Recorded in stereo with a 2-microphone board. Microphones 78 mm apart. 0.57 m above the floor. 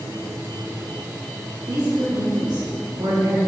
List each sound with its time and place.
1.7 s a woman speaking: 60° right (ahead or behind), 3 m; by 3.4 s 75° right (ahead or behind), 3.5 m